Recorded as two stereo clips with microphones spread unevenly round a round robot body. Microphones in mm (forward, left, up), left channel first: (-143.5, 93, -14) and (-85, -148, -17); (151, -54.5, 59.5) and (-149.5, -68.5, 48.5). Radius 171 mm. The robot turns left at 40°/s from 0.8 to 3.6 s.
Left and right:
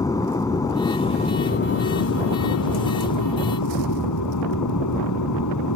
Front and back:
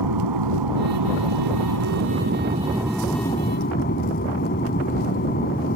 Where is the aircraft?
Straight behind; by 5.8 s 70° left.